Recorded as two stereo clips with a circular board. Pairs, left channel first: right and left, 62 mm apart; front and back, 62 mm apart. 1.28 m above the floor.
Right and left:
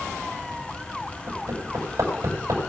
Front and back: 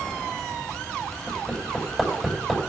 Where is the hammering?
90° left, 6 m.